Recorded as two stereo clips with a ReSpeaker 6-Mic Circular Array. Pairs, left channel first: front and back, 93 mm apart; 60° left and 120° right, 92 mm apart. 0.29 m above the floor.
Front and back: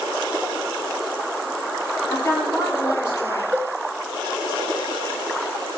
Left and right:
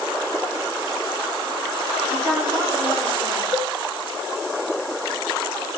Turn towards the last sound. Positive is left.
turn(degrees=-125)